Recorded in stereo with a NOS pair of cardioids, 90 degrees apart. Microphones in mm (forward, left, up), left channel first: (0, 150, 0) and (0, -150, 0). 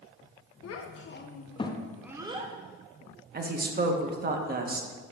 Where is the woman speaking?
30° right, 1.1 m.